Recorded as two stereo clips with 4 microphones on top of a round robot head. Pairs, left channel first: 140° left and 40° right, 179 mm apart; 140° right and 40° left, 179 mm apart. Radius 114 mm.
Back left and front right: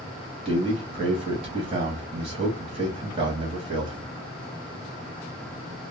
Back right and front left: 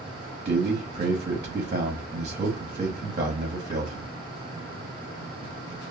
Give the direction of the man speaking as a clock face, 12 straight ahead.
12 o'clock.